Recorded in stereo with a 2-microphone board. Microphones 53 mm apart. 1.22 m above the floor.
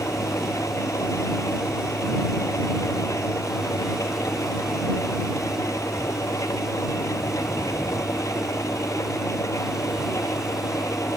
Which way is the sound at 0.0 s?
80° left.